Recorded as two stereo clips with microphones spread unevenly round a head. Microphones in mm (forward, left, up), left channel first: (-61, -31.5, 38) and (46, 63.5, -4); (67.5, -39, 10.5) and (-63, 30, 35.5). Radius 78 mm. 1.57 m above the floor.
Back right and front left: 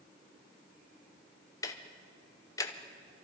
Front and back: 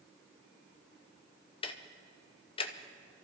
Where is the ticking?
85° right, 0.7 m.